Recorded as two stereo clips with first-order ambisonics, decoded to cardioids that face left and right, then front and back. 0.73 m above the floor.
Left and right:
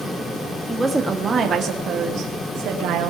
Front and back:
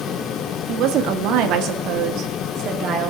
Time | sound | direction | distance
0.7 | a woman speaking | 170° right | 1.5 m